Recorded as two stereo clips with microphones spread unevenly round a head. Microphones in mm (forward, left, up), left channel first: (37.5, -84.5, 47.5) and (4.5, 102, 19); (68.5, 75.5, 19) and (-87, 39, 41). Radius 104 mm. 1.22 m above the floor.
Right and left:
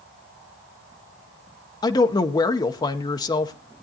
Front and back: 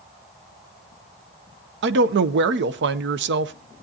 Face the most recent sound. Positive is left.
turn(degrees=-155)